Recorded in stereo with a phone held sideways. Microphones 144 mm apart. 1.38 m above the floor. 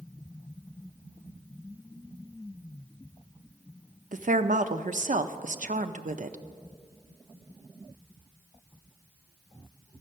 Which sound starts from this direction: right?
A woman speaking, at 4.1 s.